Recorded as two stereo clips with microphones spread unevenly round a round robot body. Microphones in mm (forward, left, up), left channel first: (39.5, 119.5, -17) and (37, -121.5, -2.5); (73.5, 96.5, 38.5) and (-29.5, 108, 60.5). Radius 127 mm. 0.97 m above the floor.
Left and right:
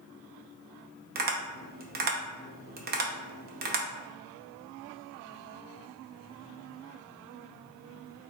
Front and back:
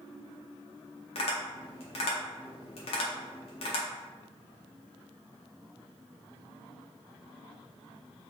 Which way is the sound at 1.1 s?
35° right.